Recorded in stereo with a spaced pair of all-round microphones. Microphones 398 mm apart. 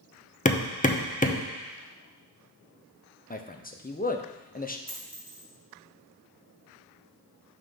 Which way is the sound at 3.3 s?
20° left (ahead or behind).